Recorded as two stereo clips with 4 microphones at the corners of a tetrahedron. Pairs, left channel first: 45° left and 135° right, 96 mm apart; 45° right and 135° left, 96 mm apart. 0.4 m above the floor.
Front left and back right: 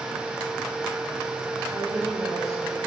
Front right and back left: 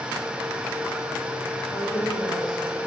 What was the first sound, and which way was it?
A woman speaking, 85° right.